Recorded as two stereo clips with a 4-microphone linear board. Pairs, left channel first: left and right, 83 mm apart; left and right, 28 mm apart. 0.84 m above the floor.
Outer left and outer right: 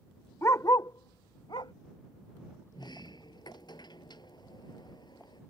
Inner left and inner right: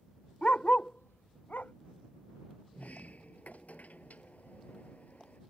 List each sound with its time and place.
0.4 s a dog barking: 35° left (ahead or behind); by 1.7 s 70° left (ahead or behind)
2.7 s a sliding door: 60° left (ahead or behind)